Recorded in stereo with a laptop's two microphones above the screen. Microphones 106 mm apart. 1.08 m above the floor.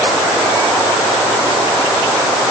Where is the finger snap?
No finger snap in this recording.